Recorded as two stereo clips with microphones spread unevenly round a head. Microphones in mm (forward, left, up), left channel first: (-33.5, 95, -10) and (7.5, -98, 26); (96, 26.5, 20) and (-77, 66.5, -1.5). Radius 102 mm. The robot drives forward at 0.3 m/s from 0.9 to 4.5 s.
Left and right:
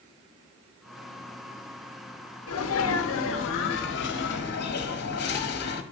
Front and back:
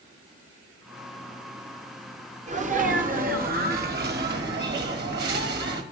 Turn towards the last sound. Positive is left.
turn(degrees=140)